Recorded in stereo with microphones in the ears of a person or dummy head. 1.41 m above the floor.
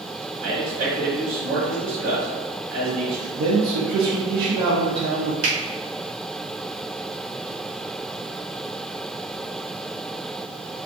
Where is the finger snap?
50° right (ahead or behind), 1.3 m.